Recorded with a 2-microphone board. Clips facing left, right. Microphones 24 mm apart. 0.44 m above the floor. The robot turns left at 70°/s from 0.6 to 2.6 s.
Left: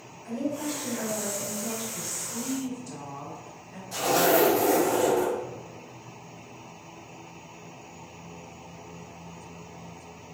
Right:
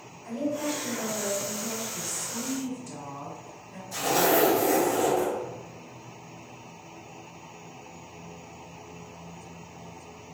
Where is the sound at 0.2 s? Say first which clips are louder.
Right 1 dB; 130° right, 1.8 m; by 1.8 s 140° left, 1.8 m.